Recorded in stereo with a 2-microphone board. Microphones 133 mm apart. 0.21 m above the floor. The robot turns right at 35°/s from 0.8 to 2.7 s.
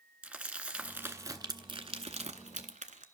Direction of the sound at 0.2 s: 10° right (ahead or behind).